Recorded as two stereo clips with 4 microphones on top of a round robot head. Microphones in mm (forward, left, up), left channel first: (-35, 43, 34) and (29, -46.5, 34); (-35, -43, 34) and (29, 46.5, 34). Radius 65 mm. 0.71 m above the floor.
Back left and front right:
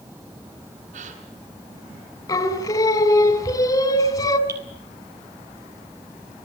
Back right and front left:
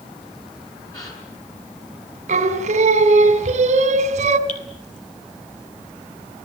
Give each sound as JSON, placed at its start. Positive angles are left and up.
{"t": 0.9, "sound": "a gasp", "azimuth_deg": -65, "distance_m": 6.5}
{"t": 2.3, "sound": "singing", "azimuth_deg": 70, "distance_m": 3.0}
{"t": 4.5, "sound": "dripping", "azimuth_deg": -115, "distance_m": 3.5}